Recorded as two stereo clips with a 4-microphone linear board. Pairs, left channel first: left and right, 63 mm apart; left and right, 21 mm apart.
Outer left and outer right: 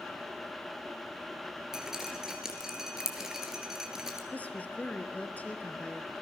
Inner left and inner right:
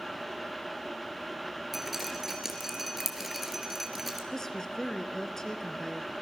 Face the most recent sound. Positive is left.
turn(degrees=25)  # may be behind; listen again after turning